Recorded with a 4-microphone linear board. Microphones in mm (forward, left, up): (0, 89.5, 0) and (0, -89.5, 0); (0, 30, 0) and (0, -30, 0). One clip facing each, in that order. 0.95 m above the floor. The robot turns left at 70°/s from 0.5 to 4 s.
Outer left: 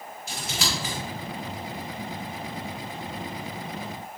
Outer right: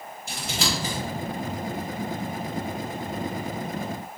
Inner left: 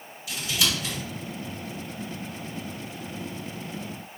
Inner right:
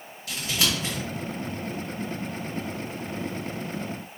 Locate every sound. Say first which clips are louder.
0.3 s scissors: outer right 3 dB, even; 55° right (ahead or behind), 1.9 m; by 0.9 s 30° right (ahead or behind), 1.9 m